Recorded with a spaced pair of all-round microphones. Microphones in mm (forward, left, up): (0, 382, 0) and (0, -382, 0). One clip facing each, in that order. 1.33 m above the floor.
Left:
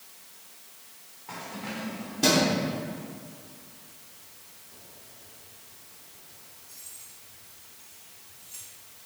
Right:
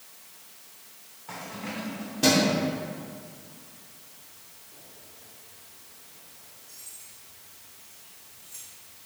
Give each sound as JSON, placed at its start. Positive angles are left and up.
{"t": 1.3, "sound": "keys jangling", "side_deg": -15, "distance_m": 3.0}